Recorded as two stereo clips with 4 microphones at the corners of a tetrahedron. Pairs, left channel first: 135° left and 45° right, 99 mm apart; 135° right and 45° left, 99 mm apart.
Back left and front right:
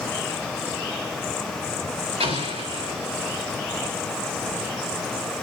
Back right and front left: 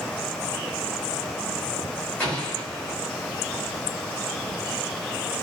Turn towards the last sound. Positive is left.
turn(degrees=-55)